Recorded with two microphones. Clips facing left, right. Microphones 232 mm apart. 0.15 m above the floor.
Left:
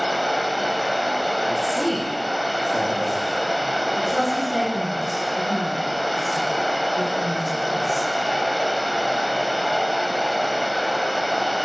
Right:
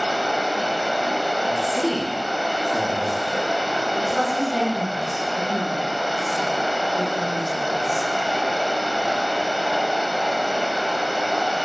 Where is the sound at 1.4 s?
10° right (ahead or behind), 1.1 m.